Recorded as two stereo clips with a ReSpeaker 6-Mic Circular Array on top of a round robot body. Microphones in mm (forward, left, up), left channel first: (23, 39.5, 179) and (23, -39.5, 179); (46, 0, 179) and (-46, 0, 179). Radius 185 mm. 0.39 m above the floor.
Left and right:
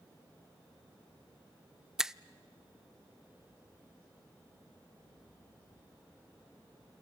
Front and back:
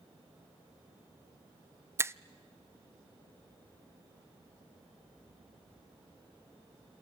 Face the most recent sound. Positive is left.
turn(degrees=-165)